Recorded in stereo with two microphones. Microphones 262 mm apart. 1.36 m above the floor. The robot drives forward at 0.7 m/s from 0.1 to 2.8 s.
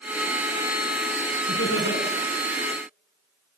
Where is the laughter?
55° left (ahead or behind), 5 m; by 2.0 s 60° left (ahead or behind), 5 m.